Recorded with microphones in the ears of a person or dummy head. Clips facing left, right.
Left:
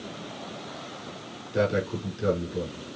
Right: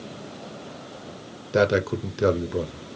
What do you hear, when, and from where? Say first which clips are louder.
1.5 s a man speaking: right 5 dB; 65° right (ahead or behind), 0.7 m